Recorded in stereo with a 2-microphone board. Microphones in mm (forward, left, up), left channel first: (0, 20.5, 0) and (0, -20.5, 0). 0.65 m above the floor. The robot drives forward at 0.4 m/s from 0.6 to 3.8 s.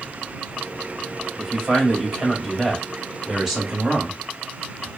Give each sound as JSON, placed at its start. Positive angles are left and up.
{"t": 1.4, "sound": "a man speaking", "side_deg": -10, "distance_m": 1.7}